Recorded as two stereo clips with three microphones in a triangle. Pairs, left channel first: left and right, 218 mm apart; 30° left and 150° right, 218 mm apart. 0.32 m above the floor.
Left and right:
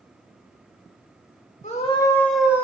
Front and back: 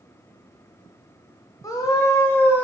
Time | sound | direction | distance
1.6 | a scream | 90° left | 1.2 m